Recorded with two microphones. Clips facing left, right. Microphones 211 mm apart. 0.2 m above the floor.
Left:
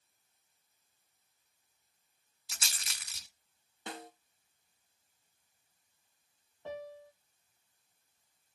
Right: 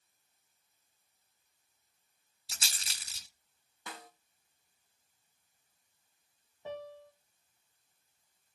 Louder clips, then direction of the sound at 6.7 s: Even; 5° right (ahead or behind).